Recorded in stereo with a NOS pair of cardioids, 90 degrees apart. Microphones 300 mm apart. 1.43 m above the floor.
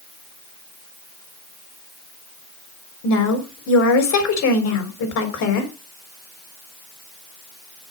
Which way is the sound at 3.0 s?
65° left.